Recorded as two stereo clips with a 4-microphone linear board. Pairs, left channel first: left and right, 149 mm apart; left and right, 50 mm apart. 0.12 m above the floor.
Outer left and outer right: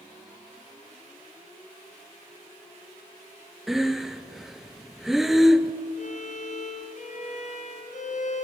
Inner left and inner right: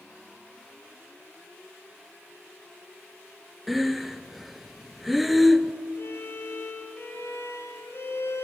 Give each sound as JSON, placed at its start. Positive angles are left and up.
{"t": 3.7, "sound": "breathing", "side_deg": 0, "distance_m": 0.9}
{"t": 6.0, "sound": "a violin", "side_deg": 55, "distance_m": 3.0}